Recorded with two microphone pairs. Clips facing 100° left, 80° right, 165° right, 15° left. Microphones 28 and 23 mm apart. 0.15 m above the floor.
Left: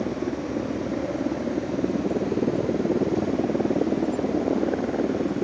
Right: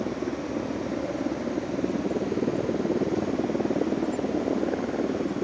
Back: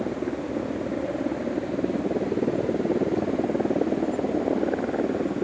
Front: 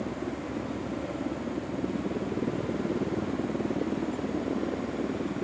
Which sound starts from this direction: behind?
A helicopter, at 0.0 s.